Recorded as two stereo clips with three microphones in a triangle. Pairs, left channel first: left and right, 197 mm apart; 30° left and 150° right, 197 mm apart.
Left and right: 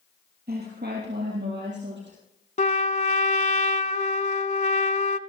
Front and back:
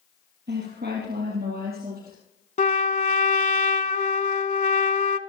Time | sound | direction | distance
0.5 | a woman speaking | 125° right | 4 m
2.6 | a trumpet | 60° left | 0.7 m